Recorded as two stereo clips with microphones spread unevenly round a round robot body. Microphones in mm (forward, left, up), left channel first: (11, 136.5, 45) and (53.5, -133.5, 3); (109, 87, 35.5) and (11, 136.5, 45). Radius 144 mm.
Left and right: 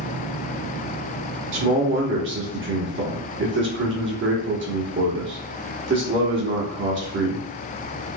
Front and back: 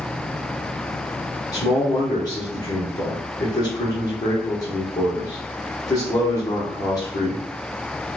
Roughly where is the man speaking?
Right.